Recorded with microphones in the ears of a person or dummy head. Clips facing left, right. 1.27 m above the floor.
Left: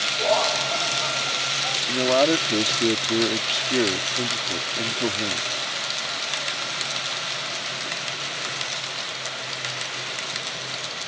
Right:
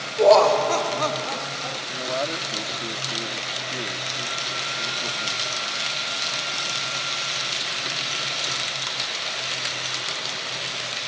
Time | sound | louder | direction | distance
0.2 | laughter | right 9 dB | 60° right (ahead or behind) | ?
1.9 | a man speaking | left 10 dB | 70° left (ahead or behind) | ?